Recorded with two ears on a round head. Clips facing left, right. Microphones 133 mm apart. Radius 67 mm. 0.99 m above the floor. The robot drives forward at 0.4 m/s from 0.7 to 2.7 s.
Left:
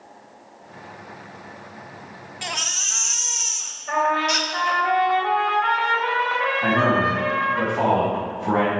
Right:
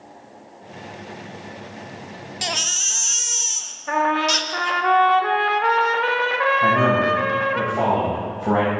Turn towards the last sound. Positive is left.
turn(degrees=-60)  # may be behind; listen again after turning